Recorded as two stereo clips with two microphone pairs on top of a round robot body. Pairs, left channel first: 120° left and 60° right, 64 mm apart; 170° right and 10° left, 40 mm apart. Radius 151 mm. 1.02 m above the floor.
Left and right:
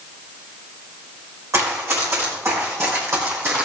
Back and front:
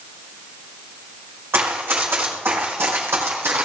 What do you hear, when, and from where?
1.5 s running footsteps: 20° right, 4.5 m; by 3.7 s 5° right, 3 m